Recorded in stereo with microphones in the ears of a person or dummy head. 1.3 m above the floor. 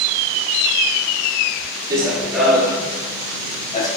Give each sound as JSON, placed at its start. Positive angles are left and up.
{"t": 1.9, "sound": "running footsteps", "side_deg": -15, "distance_m": 1.5}